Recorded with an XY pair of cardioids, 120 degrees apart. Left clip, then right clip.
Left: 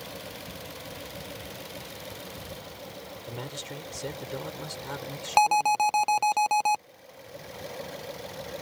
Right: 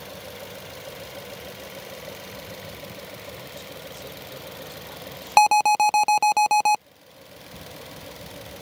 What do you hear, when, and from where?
3.3 s a man speaking: 55° left
5.4 s an alarm: 30° right